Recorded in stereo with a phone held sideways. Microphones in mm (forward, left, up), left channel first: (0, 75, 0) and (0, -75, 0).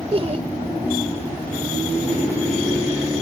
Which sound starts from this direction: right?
Laughter, at 0.1 s.